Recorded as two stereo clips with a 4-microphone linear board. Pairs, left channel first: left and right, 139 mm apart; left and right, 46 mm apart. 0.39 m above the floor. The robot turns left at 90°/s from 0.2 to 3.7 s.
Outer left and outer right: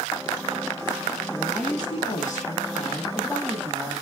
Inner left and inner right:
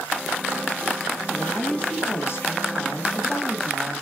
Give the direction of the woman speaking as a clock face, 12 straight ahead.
6 o'clock.